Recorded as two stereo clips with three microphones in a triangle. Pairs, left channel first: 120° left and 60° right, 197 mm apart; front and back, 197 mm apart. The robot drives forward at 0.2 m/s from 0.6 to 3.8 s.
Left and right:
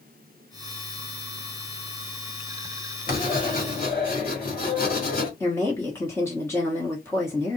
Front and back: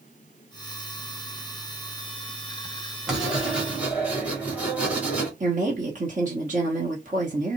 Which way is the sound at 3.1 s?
95° left.